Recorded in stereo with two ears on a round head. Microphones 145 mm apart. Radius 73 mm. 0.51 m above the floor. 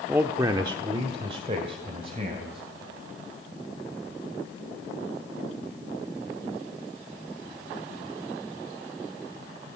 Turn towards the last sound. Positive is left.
turn(degrees=-35)  # may be behind; listen again after turning